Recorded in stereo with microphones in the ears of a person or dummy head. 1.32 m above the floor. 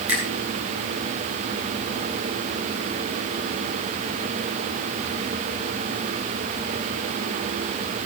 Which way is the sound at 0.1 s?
10° right (ahead or behind).